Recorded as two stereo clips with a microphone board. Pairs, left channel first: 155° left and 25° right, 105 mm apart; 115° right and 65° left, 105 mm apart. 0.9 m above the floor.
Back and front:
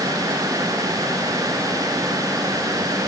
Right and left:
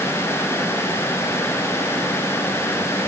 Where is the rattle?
No rattle in this recording.